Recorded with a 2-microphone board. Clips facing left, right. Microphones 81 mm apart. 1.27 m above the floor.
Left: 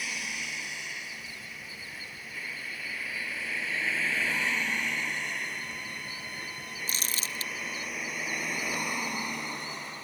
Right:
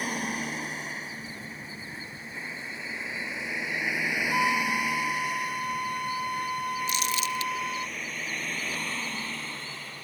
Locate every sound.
0.0 s a vehicle: 45° right (ahead or behind); by 10.0 s 20° left (ahead or behind)
4.3 s a flute: 70° right (ahead or behind)
6.9 s crumpling: 40° left (ahead or behind)